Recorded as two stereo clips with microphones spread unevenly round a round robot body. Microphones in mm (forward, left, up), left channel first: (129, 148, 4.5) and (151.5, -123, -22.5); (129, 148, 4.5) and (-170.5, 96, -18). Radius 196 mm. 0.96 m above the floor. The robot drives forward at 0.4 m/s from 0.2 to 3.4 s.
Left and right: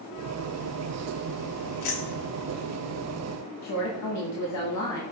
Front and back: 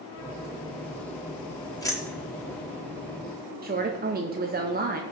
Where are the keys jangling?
90° left, 1.4 m; by 2.6 s 100° left, 1.4 m.